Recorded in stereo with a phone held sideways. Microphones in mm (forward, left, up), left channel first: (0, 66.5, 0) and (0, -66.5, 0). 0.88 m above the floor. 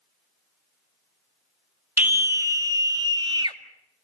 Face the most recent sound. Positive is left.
turn(degrees=-35)  # may be behind; listen again after turning